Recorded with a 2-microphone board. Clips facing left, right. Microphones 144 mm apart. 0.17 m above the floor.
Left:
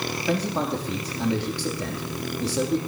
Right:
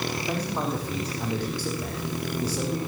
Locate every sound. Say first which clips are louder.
0.3 s a man speaking: left 6 dB; 75° left (ahead or behind), 5.5 m